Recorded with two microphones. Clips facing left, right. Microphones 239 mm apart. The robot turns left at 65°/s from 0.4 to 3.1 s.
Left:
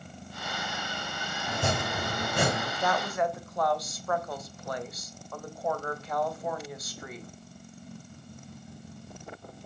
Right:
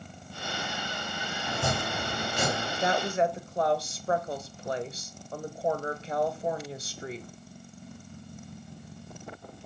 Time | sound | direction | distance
1.5 | chopping | 170° left | 2.5 m
2.8 | a woman speaking | 20° right (ahead or behind) | 0.9 m